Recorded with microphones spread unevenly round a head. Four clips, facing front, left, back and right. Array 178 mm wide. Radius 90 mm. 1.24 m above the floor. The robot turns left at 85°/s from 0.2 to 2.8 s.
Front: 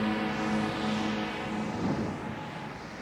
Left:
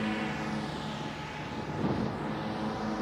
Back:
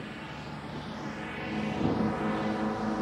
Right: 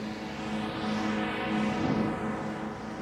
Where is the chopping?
I don't hear chopping.